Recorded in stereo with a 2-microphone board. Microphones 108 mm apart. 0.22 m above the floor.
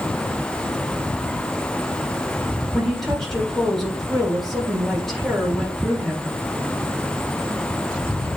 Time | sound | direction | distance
2.7 | a woman speaking | centre (ahead or behind) | 3 m